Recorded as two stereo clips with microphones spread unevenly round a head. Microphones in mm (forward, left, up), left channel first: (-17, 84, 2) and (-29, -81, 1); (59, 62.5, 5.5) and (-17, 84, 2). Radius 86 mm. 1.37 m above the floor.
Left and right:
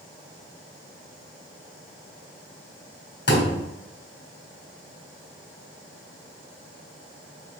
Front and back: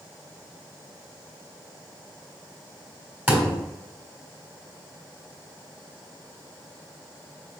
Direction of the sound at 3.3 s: 95° left.